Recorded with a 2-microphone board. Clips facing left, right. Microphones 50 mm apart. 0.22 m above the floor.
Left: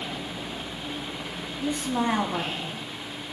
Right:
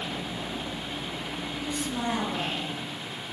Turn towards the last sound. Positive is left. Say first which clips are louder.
# left 6 dB
turn(degrees=40)  # may be behind; listen again after turning